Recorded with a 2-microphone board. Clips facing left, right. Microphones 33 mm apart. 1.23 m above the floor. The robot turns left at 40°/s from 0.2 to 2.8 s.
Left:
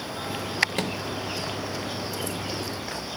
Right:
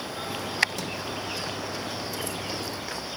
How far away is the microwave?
About 1.6 m.